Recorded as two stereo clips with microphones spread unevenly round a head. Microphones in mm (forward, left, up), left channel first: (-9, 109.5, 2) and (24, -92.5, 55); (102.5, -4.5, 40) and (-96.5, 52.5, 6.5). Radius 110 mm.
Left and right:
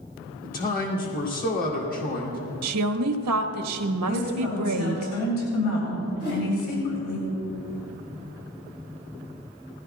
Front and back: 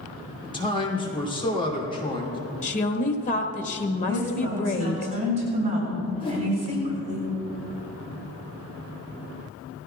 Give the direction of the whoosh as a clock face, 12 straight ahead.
10 o'clock.